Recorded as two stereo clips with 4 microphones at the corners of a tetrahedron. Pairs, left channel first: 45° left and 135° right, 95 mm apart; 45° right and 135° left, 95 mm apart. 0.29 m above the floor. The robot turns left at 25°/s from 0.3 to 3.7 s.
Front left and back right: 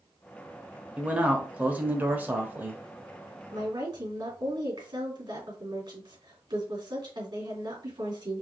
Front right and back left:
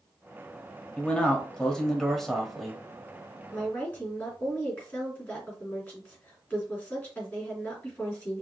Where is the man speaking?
90° right, 1.0 m; by 2.8 s 140° right, 1.0 m.